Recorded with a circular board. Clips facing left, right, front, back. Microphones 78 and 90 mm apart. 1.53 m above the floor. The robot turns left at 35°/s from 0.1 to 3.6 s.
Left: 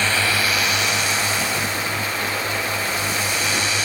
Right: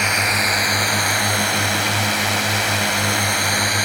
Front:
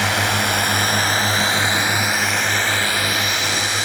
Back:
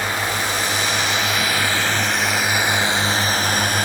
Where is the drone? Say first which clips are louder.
Right 1 dB, front 3 dB; 15° right; by 3.9 s 135° right.